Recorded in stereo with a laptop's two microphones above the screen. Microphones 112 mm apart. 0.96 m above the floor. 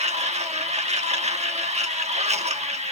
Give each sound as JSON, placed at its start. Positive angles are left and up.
{"t": 0.0, "sound": "a machine running", "side_deg": -75, "distance_m": 1.4}